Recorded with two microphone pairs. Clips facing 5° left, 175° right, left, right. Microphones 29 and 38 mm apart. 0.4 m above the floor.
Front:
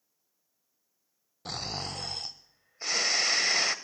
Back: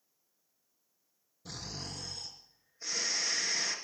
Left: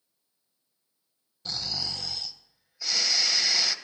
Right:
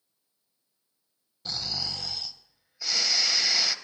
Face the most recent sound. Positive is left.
turn(degrees=-5)